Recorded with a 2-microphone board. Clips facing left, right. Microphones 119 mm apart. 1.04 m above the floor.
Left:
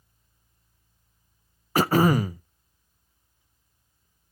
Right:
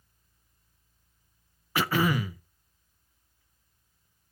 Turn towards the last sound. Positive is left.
turn(degrees=40)  # may be behind; listen again after turning